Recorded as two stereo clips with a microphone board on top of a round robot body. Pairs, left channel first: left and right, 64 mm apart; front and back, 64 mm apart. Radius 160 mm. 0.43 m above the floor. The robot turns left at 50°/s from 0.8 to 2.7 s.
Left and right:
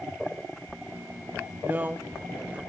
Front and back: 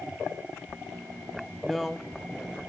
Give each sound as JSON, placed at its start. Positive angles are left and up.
{"t": 1.6, "sound": "a man speaking", "azimuth_deg": -85, "distance_m": 0.7}